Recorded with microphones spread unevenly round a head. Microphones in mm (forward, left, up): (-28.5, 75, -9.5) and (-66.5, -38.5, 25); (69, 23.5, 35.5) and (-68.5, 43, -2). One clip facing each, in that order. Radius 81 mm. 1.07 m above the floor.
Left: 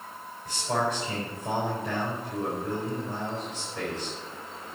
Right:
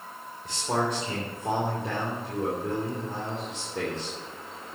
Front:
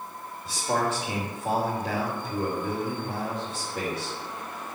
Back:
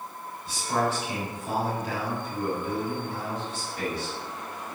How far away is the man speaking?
About 3 m.